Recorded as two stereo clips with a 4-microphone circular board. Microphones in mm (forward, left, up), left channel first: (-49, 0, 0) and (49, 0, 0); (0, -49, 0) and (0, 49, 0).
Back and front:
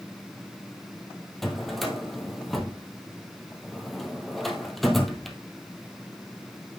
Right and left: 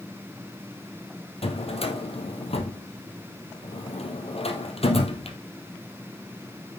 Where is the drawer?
90° right, 1.7 m.